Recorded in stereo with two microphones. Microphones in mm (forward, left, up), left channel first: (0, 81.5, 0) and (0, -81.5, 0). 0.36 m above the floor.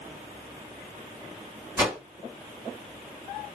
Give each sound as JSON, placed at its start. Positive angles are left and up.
{"t": 1.8, "sound": "a whoosh", "side_deg": -15, "distance_m": 1.9}